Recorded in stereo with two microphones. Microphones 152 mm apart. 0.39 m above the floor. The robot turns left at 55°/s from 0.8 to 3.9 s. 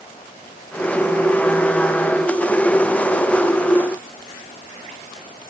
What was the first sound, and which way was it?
Only background noise.